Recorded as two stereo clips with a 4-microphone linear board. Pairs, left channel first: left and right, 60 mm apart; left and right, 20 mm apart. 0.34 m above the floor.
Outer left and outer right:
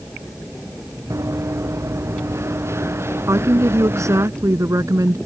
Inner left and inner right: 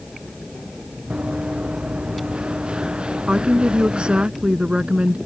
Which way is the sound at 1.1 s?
55° right (ahead or behind).